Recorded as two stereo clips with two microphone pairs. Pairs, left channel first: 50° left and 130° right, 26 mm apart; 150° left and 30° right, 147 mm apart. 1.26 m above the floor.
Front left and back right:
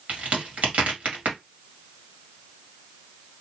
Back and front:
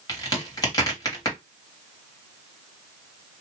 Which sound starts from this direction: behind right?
A crack, at 0.1 s.